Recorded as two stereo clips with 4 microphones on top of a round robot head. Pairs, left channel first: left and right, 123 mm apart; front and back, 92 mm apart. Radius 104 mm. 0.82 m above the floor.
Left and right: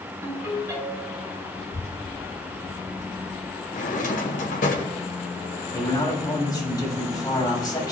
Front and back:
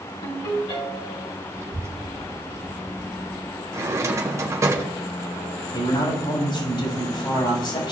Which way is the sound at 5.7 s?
30° left.